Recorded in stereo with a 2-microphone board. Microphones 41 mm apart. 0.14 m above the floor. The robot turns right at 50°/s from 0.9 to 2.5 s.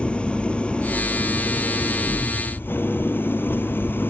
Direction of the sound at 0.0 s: 30° left.